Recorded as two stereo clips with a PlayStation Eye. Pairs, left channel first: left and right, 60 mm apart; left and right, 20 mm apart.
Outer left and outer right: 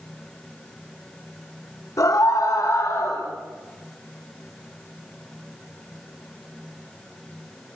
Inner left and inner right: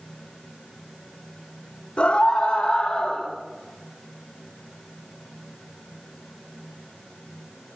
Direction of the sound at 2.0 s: 75° left (ahead or behind).